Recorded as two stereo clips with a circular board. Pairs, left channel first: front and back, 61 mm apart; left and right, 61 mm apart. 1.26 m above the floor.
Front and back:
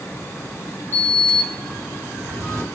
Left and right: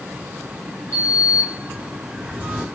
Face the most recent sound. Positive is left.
turn(degrees=-150)